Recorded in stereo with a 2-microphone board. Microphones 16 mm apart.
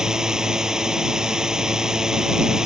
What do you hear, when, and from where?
0.0 s a drone: 45° right (ahead or behind)